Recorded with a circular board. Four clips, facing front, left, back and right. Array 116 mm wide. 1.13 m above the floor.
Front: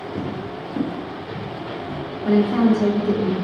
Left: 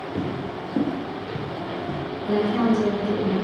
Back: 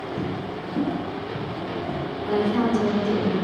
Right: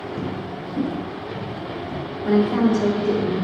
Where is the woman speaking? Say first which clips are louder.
Right 3 dB, front 5 dB; 25° right, 1.9 m.